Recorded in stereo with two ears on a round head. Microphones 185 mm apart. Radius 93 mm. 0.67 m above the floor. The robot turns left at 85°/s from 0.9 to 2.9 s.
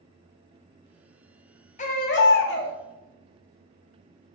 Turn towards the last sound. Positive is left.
turn(degrees=45)